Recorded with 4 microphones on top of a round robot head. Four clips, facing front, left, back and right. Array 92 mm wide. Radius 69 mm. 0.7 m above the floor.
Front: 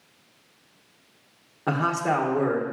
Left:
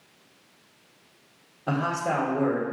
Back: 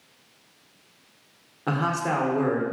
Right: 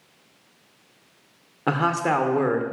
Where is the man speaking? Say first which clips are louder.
Right 4 dB, front 1 dB; 80° right, 2.5 m.